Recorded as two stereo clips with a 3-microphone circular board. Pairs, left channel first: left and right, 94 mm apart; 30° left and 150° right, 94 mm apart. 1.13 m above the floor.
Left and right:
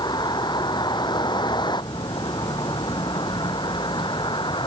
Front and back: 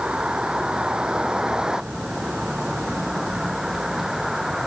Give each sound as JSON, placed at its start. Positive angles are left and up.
{"t": 0.0, "sound": "a vehicle", "azimuth_deg": 130}